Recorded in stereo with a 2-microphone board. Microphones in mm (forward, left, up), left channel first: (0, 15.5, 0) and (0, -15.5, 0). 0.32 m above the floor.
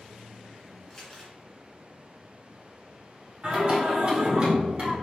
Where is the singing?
40° right (ahead or behind), 1.6 m.